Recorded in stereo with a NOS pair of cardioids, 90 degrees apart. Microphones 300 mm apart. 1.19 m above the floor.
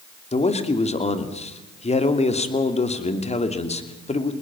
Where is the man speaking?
20° left, 3 m.